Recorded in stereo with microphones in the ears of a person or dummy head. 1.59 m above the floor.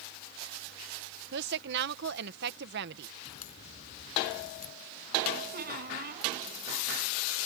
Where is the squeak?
50° right (ahead or behind).